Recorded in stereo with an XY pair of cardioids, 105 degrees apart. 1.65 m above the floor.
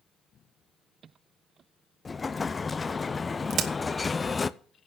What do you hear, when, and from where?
2.0 s an explosion: 25° left, 0.5 m
3.5 s a crack: 65° right, 1.5 m